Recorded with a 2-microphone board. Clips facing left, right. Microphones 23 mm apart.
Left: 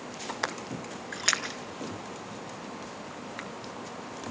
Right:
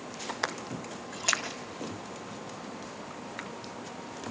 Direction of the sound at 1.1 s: 45° left (ahead or behind).